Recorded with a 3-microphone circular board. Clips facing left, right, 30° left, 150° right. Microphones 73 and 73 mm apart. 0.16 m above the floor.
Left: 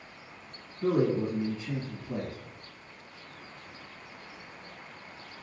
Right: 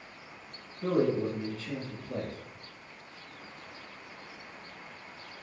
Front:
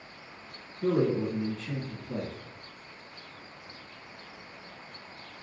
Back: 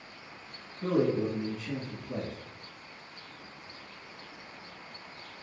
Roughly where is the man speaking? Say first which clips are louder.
Left 1 dB, front 1 dB; behind left.